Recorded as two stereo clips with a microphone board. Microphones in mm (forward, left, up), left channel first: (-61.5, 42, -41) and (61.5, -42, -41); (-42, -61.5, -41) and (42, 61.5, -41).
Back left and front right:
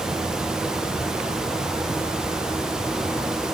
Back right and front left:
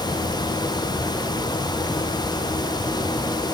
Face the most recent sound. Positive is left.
No sound to turn to.